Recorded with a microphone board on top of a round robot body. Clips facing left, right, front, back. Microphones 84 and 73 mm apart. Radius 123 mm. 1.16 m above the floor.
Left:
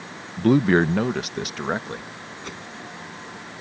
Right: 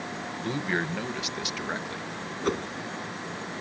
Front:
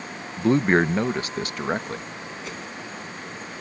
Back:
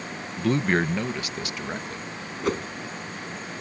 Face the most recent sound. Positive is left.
turn(degrees=-140)